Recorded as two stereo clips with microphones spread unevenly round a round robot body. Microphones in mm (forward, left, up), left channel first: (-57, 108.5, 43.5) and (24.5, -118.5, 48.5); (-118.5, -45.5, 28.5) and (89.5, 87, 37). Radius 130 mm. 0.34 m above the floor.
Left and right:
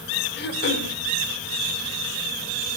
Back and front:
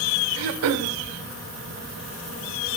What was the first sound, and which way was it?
Throat clearing, 65° left.